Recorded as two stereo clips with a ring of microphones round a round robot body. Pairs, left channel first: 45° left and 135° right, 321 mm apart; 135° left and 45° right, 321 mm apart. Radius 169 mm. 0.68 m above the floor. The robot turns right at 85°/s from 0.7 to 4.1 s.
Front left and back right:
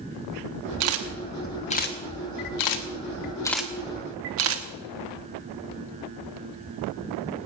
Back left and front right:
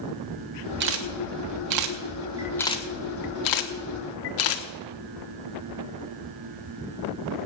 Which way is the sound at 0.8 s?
100° right.